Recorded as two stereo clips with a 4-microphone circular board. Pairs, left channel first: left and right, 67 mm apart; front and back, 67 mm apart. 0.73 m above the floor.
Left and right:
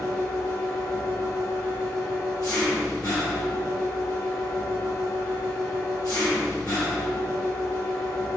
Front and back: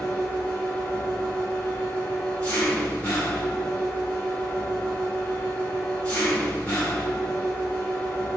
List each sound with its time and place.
0.0 s an engine running: 65° left, 1.3 m